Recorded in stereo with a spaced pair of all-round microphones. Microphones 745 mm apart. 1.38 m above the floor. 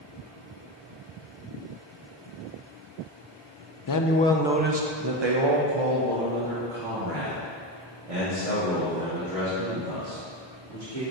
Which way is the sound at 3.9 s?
35° left (ahead or behind).